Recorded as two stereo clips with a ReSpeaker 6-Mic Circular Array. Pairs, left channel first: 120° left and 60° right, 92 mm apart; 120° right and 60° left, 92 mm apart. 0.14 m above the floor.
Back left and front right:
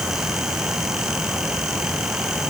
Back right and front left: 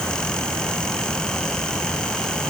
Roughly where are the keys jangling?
No keys jangling in this recording.